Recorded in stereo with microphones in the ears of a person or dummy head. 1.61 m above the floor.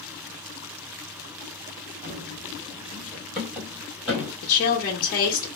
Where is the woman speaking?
50° left (ahead or behind), 1.3 m.